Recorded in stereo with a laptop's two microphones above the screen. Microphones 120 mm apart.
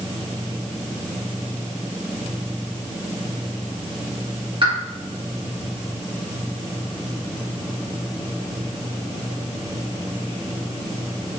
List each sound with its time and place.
4.6 s a pop: 45° right (ahead or behind), 2.5 m